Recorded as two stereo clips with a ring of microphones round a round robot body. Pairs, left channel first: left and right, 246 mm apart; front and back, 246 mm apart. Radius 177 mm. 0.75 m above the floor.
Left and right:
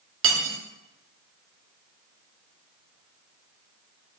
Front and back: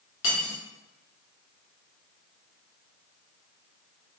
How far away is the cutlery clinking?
About 0.8 m.